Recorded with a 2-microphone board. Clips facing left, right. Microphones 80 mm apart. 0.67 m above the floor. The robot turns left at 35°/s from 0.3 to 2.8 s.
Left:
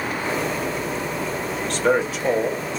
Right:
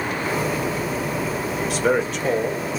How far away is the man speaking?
About 0.9 m.